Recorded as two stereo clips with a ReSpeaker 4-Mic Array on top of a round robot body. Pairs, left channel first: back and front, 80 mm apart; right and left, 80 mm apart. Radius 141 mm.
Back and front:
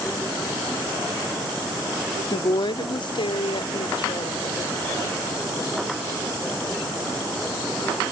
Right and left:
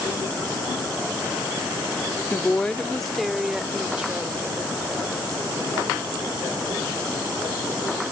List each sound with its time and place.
2.3 s a woman speaking: 160° right; by 4.6 s 165° left